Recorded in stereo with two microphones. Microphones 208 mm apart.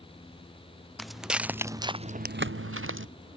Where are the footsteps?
Centre (ahead or behind); by 3.1 s 65° right (ahead or behind).